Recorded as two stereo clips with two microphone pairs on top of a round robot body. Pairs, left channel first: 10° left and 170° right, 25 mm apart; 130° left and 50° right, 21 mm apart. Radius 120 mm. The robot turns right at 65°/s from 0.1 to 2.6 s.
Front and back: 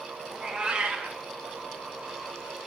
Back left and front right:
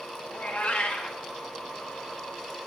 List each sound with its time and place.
0.3 s a cat meowing: 125° left, 1.4 m; by 1.2 s straight behind, 1.4 m